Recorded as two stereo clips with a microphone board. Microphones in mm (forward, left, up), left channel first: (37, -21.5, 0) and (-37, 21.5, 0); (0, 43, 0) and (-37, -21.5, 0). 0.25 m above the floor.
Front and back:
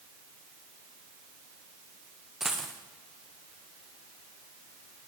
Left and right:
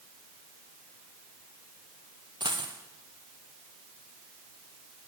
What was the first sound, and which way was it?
A dropped coin, 125° right.